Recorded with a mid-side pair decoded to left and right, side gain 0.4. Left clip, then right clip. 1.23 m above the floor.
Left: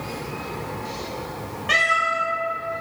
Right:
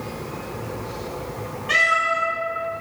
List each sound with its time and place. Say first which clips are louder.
1.7 s a cat meowing: right 1 dB; 50° left, 1.2 m